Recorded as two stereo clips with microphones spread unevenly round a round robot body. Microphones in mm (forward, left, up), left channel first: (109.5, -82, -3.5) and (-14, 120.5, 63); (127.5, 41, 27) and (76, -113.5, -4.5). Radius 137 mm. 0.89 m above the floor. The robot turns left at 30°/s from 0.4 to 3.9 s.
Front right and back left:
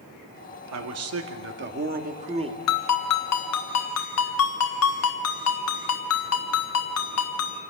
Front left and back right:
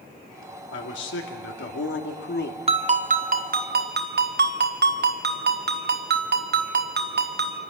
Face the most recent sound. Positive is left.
turn(degrees=-90)